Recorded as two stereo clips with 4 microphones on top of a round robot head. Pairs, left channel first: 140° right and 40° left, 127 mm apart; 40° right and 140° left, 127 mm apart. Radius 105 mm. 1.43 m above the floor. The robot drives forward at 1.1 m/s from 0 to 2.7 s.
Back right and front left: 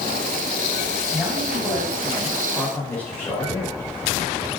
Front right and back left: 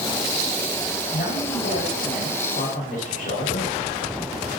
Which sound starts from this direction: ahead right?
A man speaking, at 1.1 s.